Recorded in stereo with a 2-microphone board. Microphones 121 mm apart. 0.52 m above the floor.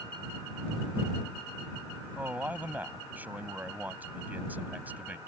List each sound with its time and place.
2.1 s a man speaking: 15° right (ahead or behind)